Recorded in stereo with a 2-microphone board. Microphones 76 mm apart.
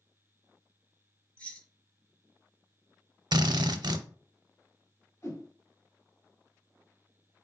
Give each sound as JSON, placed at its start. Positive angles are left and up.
{"t": 1.4, "sound": "keys jangling", "side_deg": 15, "distance_m": 0.7}
{"t": 3.3, "sound": "a drill", "side_deg": -65, "distance_m": 0.5}
{"t": 5.2, "sound": "a whoosh", "side_deg": 35, "distance_m": 2.0}